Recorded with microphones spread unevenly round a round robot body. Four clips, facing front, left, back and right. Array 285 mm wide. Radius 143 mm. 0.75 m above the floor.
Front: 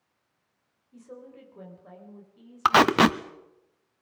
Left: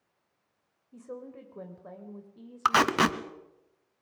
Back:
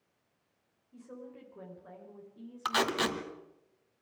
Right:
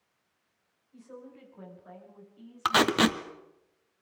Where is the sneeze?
No sneeze in this recording.